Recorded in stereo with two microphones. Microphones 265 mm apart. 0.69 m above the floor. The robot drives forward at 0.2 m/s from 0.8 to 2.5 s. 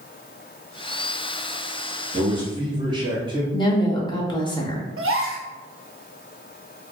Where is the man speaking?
20° right (ahead or behind), 0.9 m.